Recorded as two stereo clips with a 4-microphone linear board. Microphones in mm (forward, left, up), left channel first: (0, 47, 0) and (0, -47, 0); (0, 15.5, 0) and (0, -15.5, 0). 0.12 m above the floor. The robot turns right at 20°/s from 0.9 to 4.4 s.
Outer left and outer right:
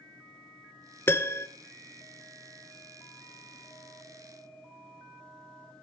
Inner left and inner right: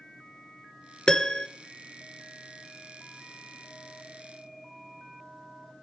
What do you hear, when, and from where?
1.1 s a piano: 25° left (ahead or behind), 0.6 m; by 1.5 s 30° left (ahead or behind), 0.6 m